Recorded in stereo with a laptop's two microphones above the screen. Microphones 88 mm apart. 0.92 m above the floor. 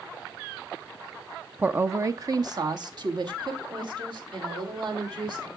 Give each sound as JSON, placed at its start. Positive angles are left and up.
{"t": 1.6, "sound": "a woman speaking", "side_deg": -15, "distance_m": 0.5}